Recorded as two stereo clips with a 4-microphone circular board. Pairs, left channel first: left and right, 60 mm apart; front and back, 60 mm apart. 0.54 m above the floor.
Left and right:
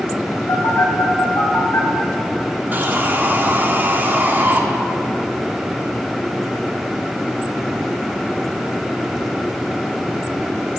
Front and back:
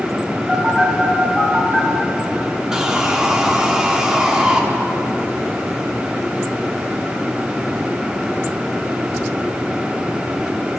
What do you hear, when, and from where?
0.5 s a phone buzzing: 80° left, 2.5 m
2.7 s sawing: 110° right, 1.0 m